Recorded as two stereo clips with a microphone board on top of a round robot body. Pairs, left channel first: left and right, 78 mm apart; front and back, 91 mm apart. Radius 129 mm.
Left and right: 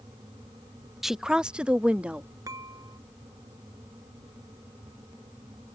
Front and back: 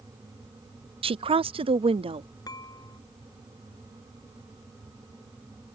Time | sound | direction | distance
1.0 | a woman speaking | 175° right | ?
2.5 | dishes clattering | 50° right | ?